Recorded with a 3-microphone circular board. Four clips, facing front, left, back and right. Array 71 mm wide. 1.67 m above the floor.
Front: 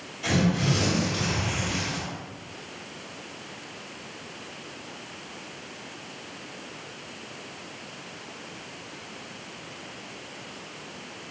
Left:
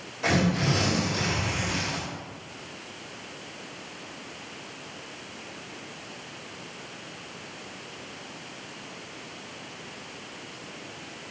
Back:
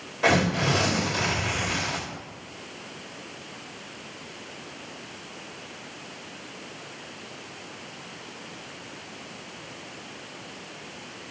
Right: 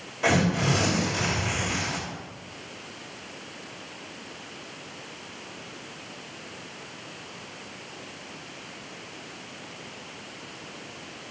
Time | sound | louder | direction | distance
0.2 | tearing paper | right 1 dB, back 3 dB | 160° right | 3 m